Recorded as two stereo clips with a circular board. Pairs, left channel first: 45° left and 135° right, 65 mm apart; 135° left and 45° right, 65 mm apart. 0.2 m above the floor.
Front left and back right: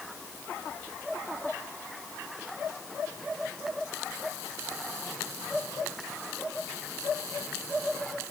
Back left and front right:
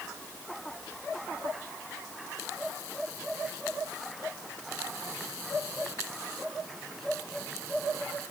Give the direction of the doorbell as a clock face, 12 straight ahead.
I don't hear a doorbell.